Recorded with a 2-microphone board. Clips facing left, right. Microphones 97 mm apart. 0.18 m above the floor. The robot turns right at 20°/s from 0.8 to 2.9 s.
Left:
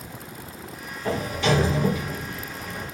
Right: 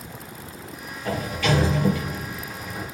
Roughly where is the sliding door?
Behind left.